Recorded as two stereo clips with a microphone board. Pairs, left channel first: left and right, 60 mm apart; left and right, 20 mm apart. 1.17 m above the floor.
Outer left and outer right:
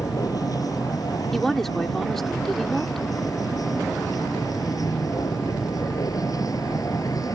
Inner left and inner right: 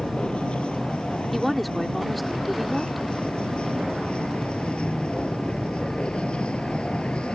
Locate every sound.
0.0 s a vehicle: 90° left; by 7.4 s 75° left (ahead or behind)
1.3 s a woman speaking: centre (ahead or behind)